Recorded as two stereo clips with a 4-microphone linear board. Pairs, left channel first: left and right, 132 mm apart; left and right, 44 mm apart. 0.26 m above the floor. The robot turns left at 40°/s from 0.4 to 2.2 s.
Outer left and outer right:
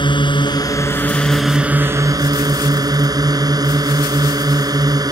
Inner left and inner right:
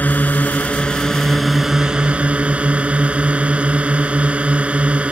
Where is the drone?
40° left; by 5.1 s 30° right.